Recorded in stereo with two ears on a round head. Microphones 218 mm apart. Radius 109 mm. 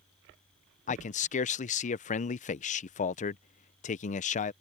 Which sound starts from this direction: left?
A man speaking, at 0.9 s.